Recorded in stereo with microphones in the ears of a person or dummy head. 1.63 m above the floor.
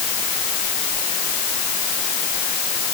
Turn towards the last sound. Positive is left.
No sound to turn to.